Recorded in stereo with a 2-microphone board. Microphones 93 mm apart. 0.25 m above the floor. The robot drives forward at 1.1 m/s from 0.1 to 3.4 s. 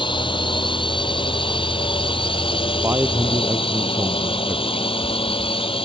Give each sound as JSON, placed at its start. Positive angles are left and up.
{"t": 0.0, "sound": "a drone", "side_deg": 60}
{"t": 2.8, "sound": "a man speaking", "side_deg": -25}